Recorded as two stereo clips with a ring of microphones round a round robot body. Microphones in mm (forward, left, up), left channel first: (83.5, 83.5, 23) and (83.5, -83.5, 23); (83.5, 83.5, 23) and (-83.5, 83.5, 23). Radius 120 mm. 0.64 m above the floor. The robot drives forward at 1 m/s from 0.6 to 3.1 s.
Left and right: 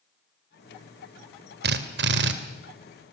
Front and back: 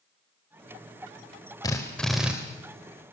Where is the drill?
75° right, 1.9 m; by 2.3 s 95° right, 1.8 m.